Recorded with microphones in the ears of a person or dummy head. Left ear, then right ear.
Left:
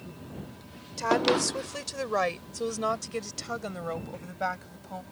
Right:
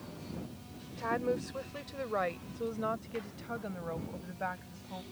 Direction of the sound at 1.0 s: 85° left.